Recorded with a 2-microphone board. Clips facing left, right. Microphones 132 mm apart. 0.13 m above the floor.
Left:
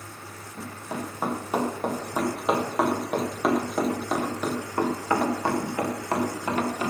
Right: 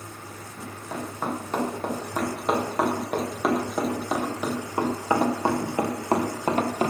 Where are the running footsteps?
15° left (ahead or behind), 4.5 m; by 6.9 s 40° right (ahead or behind), 2 m.